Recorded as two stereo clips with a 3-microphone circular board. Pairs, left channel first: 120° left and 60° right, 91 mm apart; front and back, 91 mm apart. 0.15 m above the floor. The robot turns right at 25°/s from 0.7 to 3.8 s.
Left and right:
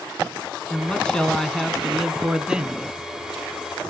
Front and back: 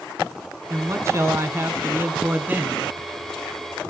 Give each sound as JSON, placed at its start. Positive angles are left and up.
{"t": 0.7, "sound": "a man speaking", "azimuth_deg": 180, "distance_m": 1.2}